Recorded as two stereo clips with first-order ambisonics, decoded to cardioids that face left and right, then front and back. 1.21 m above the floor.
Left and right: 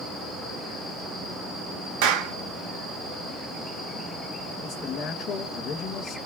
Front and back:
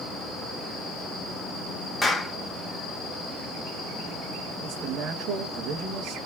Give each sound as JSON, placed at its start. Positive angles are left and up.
{"t": 2.0, "sound": "a clap", "azimuth_deg": -85, "distance_m": 1.4}
{"t": 4.6, "sound": "a man speaking", "azimuth_deg": 140, "distance_m": 1.6}